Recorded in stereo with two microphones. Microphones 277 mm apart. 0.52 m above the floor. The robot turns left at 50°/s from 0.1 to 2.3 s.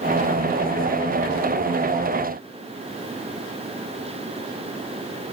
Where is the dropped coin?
No dropped coin in this recording.